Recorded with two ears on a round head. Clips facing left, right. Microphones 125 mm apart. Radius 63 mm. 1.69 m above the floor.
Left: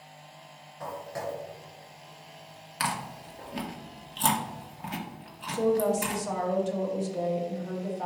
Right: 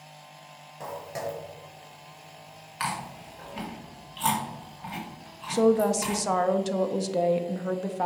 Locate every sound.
0.8 s footsteps: 30° right (ahead or behind), 2.5 m; by 3.5 s 20° left (ahead or behind), 1.7 m
2.8 s chewing: 50° left (ahead or behind), 1.4 m
5.5 s a woman speaking: 75° right (ahead or behind), 0.7 m